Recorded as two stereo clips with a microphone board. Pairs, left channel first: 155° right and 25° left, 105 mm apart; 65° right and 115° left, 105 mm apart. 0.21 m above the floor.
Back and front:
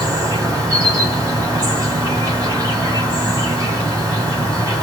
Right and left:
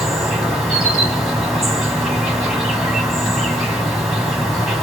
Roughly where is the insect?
Ahead left.